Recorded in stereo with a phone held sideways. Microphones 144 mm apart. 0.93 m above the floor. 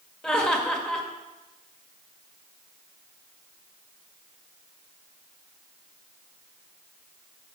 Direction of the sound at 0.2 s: 5° left (ahead or behind).